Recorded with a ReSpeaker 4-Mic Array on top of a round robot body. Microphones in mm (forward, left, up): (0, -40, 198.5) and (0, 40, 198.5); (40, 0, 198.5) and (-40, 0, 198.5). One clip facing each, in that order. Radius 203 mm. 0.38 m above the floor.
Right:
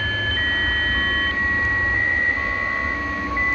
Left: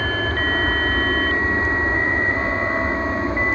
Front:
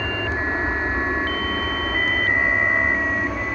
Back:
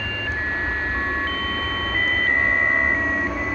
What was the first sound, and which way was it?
An aircraft, 50° left.